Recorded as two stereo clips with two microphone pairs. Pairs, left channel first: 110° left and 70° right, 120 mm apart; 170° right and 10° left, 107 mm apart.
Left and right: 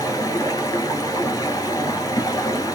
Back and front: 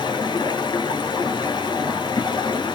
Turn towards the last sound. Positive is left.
turn(degrees=160)